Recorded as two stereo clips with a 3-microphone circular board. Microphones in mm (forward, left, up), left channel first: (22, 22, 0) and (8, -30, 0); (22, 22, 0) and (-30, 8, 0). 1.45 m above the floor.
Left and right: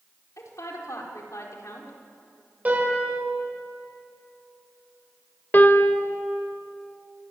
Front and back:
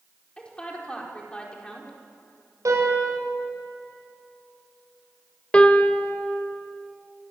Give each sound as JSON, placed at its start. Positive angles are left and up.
{"t": 0.4, "sound": "a woman speaking", "azimuth_deg": 85, "distance_m": 4.5}
{"t": 2.6, "sound": "a piano", "azimuth_deg": -165, "distance_m": 8.0}
{"t": 5.5, "sound": "a piano", "azimuth_deg": 70, "distance_m": 1.4}